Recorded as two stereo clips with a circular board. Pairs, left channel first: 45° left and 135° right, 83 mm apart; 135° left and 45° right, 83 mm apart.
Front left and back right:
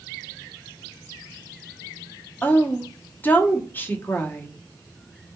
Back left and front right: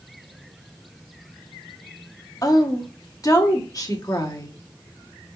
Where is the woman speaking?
105° left, 0.9 m.